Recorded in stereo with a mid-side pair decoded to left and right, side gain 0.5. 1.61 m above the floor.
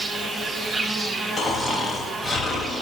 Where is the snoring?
30° left, 3.5 m.